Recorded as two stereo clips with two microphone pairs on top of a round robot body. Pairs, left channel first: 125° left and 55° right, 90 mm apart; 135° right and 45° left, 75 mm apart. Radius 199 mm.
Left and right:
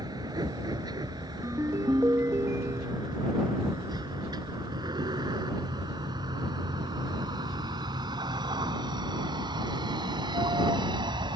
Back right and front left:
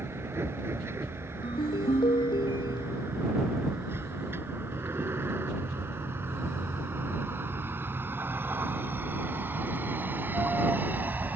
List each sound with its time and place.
0.0 s a vehicle: 10° right; by 11.4 s 20° right
1.4 s a ringtone: 115° right